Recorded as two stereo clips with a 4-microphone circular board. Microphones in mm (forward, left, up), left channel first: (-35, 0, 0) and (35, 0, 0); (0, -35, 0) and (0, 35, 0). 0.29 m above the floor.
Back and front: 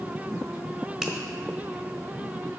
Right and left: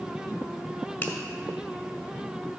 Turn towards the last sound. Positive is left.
turn(degrees=-75)